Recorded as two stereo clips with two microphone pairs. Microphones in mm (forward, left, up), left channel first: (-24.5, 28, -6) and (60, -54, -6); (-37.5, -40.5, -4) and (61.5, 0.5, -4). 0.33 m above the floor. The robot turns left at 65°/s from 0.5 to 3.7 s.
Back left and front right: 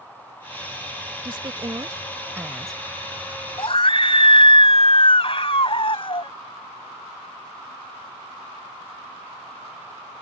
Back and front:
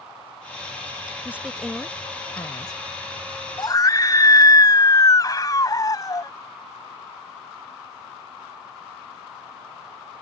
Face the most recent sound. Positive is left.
turn(degrees=155)